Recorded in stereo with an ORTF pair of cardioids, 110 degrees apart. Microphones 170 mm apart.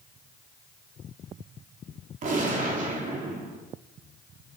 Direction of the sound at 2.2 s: 50° right.